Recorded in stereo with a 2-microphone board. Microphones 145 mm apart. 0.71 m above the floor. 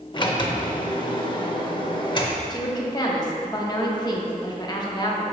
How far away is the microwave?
No microwave in this recording.